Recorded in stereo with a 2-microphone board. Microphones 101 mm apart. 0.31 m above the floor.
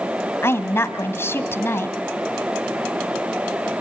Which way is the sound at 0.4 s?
25° left (ahead or behind).